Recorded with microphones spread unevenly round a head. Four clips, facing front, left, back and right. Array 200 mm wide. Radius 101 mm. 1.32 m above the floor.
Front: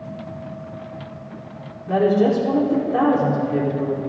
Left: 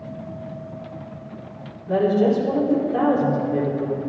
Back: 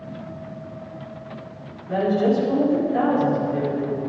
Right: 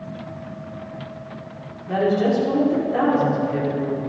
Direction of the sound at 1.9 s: 10° right.